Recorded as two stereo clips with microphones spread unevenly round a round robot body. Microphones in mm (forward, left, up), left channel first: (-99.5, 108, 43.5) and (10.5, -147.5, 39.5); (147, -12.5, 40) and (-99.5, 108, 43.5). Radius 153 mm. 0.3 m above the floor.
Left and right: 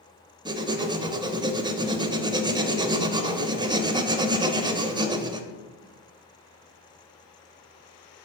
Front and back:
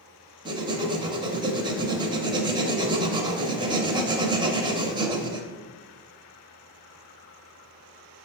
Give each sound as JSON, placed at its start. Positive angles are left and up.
{"t": 0.5, "sound": "writing", "azimuth_deg": -135, "distance_m": 0.6}